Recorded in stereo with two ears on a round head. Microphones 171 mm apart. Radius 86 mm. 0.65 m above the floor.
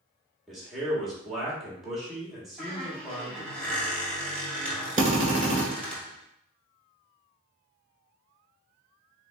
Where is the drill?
40° right (ahead or behind), 2.0 m.